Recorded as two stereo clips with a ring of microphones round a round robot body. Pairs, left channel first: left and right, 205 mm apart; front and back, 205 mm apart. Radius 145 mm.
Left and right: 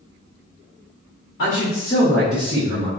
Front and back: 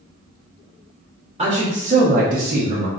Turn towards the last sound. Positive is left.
turn(degrees=-135)